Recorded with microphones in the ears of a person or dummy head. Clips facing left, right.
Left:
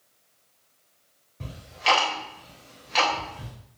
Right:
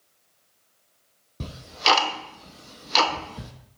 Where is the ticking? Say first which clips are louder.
Right 1 dB; 55° right (ahead or behind), 0.7 m.